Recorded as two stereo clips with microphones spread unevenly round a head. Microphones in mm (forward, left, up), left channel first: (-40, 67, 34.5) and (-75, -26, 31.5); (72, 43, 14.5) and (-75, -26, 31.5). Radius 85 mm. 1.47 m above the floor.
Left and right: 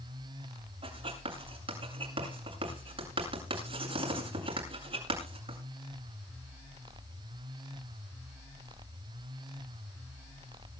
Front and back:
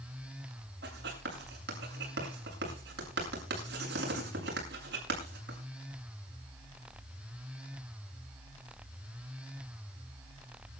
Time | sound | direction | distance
0.8 | writing | 130° right | 8 m